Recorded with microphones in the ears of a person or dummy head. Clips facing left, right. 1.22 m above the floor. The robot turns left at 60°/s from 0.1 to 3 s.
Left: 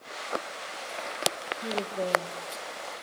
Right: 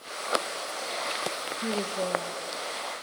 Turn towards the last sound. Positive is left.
turn(degrees=120)